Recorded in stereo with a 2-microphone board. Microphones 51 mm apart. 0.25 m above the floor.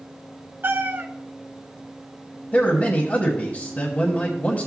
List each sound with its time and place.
0.6 s a cat meowing: 45° right (ahead or behind), 0.7 m
2.5 s a man speaking: 35° left (ahead or behind), 1.1 m